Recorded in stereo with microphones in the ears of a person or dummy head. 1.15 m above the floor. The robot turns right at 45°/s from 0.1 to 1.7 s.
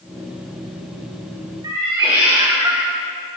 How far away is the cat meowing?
About 2.5 m.